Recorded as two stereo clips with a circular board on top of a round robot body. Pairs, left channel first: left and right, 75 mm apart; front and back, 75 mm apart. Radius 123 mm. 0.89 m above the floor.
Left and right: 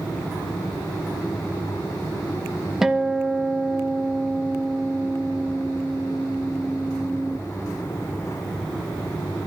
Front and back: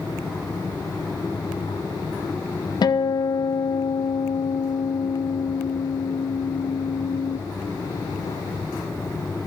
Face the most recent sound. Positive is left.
turn(degrees=-5)